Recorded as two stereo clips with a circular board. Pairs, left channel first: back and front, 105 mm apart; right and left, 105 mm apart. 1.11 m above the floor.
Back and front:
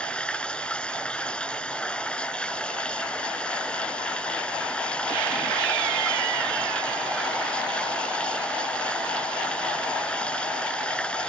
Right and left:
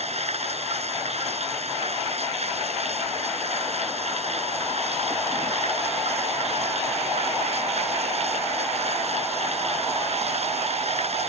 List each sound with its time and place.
0.0 s running water: 100° left